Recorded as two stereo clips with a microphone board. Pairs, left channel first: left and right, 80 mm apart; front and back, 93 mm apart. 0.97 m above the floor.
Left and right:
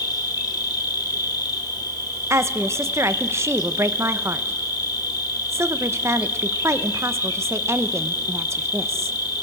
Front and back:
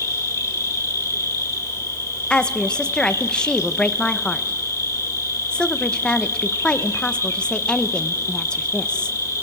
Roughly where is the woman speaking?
Right.